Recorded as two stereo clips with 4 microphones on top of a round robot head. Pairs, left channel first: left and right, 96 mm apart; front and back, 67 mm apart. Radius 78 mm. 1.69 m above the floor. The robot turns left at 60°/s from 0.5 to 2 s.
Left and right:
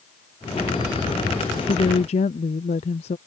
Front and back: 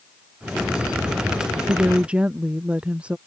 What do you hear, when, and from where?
1.7 s a woman speaking: 130° left; by 3.2 s 110° left